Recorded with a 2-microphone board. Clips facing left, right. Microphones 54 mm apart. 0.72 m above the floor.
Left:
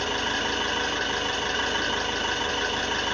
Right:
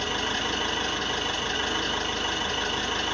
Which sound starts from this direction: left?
An engine running, at 0.0 s.